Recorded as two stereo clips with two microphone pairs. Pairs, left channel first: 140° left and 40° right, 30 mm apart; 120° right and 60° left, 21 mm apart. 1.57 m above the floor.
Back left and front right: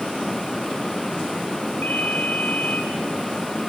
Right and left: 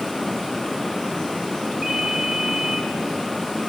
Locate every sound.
1.8 s a ringtone: 125° left, 7.5 m